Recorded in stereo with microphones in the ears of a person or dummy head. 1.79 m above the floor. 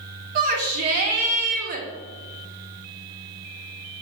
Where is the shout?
50° right (ahead or behind), 0.6 m.